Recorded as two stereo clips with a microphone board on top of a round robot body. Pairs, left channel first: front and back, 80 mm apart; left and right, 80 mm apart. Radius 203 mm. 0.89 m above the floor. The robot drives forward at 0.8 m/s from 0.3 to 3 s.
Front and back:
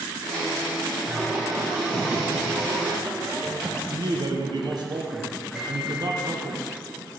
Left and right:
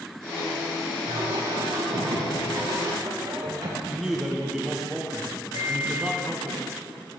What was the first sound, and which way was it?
Singing, 105° right.